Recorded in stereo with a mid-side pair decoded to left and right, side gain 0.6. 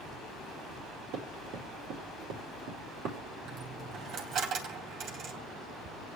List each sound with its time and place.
1.1 s running footsteps: 70° right, 5 m
3.5 s a dropped coin: 55° right, 3 m